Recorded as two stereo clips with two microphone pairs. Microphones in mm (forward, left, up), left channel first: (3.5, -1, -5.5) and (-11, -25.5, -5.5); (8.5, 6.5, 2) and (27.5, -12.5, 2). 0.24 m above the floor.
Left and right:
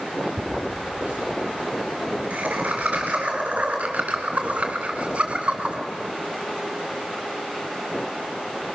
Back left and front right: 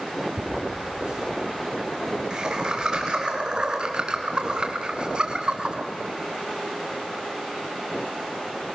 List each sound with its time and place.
0.4 s laughter: 105° right, 5 m; by 5.8 s 85° right, 2.0 m